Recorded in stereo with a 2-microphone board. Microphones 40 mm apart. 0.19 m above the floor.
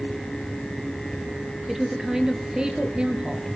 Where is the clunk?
I don't hear a clunk.